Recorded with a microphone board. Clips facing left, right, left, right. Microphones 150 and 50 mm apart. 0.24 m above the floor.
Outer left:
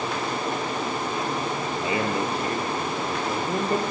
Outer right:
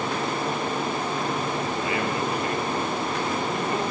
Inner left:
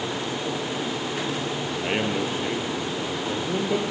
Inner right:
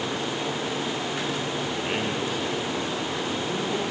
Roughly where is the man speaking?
Left.